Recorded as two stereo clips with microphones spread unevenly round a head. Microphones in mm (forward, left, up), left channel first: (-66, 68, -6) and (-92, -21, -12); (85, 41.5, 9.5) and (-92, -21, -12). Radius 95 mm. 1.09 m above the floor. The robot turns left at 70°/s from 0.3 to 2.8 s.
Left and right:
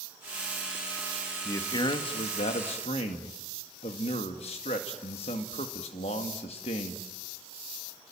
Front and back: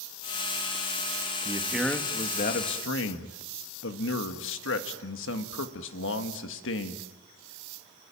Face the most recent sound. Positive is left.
turn(degrees=40)